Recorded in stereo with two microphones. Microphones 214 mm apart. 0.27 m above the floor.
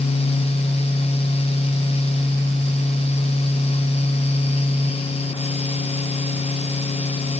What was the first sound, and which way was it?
Only background noise.